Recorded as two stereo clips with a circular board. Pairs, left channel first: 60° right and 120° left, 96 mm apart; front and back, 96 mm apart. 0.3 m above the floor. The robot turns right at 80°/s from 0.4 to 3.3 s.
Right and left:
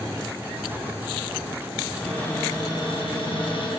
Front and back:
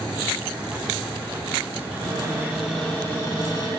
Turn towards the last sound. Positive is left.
turn(degrees=-50)